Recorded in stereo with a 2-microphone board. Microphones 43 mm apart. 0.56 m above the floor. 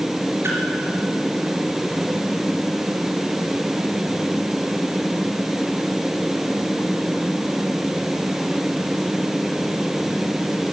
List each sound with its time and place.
0.4 s a splash: 70° right (ahead or behind), 3.5 m